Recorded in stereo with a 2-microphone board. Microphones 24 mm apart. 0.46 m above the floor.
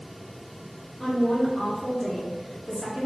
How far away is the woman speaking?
About 0.7 m.